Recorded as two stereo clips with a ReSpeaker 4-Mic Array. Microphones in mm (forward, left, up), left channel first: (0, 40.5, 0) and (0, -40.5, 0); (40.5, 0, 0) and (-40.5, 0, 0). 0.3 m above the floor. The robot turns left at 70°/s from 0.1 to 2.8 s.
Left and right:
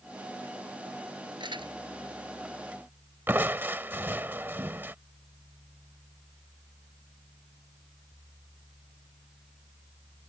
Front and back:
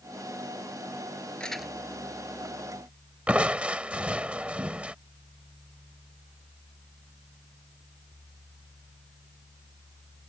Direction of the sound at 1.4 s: 75° right.